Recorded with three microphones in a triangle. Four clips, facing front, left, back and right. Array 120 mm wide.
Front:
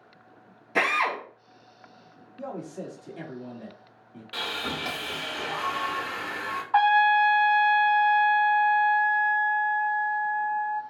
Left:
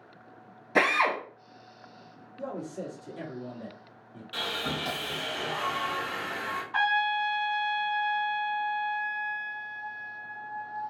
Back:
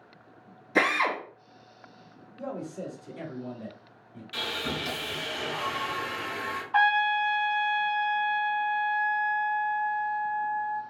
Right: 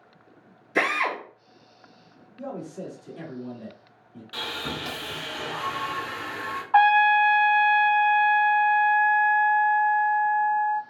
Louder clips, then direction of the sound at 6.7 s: Right 10 dB, front 5 dB; 50° right.